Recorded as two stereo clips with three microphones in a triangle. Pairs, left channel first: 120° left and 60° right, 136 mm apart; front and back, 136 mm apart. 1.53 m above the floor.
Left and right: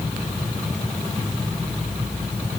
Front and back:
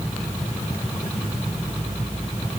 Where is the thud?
I don't hear a thud.